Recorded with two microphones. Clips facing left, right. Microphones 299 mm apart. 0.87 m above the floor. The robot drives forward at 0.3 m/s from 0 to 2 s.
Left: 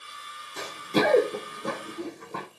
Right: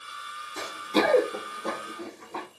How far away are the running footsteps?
About 1.1 m.